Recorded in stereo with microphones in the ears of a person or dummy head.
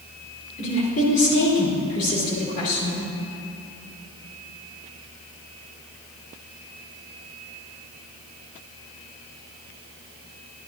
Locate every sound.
0.6 s a woman speaking: 40° left (ahead or behind), 3 m